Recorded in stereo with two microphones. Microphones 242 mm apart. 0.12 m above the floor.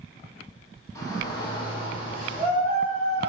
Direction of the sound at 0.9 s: 15° left (ahead or behind).